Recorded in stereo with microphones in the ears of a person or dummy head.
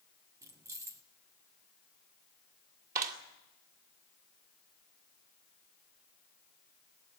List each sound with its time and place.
0.4 s keys jangling: 10° right (ahead or behind), 0.6 m
3.0 s a clap: 50° right (ahead or behind), 2 m